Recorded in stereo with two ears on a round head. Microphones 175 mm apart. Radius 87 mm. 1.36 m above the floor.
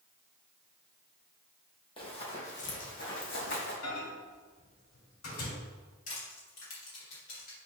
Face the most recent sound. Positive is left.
turn(degrees=40)  # may be behind; listen again after turning